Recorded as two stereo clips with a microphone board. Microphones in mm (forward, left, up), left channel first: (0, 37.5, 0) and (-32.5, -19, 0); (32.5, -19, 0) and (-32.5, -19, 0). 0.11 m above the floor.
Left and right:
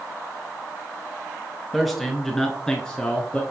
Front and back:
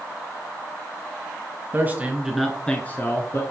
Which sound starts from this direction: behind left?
A man speaking, at 1.7 s.